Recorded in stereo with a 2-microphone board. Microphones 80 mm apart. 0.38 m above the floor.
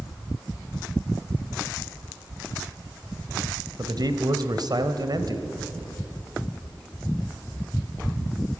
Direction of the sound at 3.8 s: 55° right (ahead or behind).